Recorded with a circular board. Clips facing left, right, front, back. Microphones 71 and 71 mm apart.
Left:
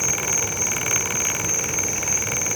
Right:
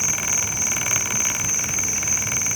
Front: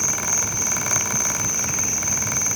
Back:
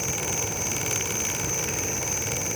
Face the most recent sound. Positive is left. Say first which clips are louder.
# left 2 dB, front 2 dB
turn(degrees=130)